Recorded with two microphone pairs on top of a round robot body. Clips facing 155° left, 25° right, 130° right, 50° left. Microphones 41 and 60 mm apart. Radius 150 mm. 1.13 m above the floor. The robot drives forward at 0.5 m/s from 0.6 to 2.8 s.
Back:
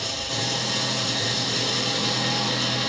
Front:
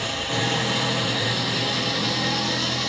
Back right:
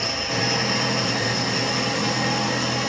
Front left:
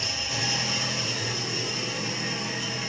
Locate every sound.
0.0 s an engine running: 85° right, 1.8 m; by 2.9 s 120° right, 2 m